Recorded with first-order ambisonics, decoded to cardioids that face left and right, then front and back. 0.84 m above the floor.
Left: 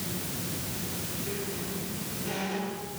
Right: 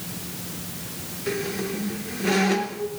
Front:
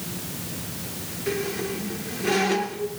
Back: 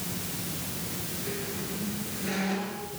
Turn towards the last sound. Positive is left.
turn(degrees=-60)